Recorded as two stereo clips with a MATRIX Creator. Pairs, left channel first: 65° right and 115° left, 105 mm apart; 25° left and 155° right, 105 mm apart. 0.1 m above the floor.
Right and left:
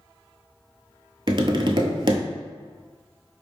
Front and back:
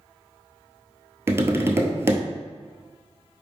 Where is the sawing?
I don't hear sawing.